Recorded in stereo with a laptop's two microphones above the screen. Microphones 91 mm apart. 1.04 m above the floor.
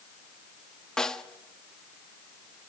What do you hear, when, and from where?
1.0 s a snare drum: 5° left (ahead or behind), 1.4 m